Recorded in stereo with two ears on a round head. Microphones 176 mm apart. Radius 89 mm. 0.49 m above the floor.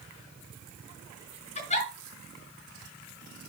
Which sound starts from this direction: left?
A giggle, at 1.6 s.